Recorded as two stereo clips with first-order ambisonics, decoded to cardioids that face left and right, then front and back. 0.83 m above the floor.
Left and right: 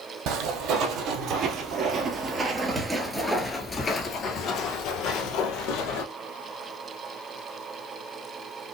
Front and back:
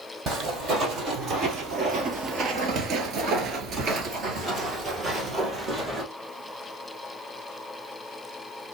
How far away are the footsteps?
About 1.8 m.